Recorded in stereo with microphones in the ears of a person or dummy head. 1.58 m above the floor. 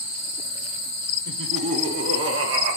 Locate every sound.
1.2 s laughter: 70° right (ahead or behind), 2.5 m; by 2.8 s 75° right (ahead or behind), 1.7 m